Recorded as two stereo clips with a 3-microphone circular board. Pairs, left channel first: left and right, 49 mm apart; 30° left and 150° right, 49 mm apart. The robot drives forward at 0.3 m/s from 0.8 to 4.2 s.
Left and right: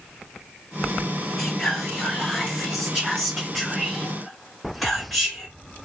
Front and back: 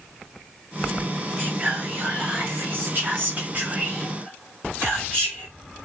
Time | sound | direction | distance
1.4 | whispering | straight behind | 0.8 m